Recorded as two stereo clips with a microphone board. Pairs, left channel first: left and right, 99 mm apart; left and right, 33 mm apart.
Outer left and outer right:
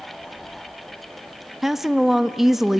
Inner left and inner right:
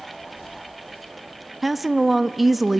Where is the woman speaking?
5° right (ahead or behind), 0.5 m.